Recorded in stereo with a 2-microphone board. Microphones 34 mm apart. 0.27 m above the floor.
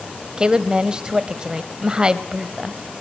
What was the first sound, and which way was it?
A woman speaking, 25° right (ahead or behind).